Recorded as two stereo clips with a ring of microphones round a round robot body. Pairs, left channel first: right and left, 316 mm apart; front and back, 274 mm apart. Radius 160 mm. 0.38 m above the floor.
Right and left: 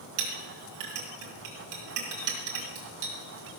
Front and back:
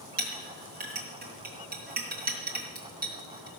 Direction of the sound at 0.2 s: 125° left.